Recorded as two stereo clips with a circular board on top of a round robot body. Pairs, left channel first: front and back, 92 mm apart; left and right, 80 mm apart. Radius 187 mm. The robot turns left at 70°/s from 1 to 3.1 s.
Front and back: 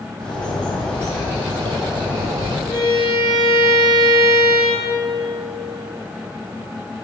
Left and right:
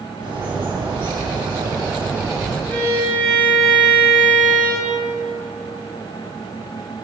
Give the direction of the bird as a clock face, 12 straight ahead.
3 o'clock.